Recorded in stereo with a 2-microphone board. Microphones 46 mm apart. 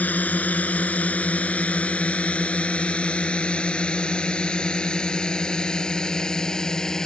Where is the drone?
35° left (ahead or behind); by 7.1 s 15° left (ahead or behind).